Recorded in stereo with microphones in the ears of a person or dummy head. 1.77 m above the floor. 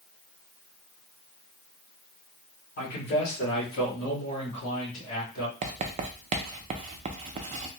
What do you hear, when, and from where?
2.8 s a man speaking: 45° left (ahead or behind), 2 m; by 5.5 s 60° left (ahead or behind), 1.9 m
5.6 s writing: 35° right (ahead or behind), 0.6 m